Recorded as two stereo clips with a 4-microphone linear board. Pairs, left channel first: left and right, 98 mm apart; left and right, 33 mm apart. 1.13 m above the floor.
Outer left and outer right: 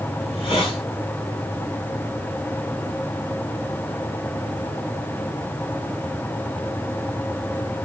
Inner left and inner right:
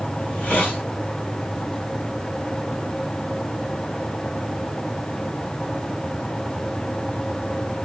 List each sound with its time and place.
0.2 s a hiss: 65° left (ahead or behind), 2.5 m